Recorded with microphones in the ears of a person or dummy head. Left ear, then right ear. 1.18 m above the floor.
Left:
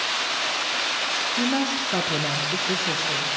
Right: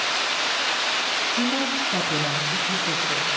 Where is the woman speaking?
10° left (ahead or behind), 0.8 m; by 3.3 s 70° left (ahead or behind), 1.4 m.